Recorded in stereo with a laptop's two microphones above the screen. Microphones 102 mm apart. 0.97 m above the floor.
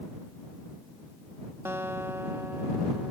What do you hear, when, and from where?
1.6 s a guitar: 25° right (ahead or behind)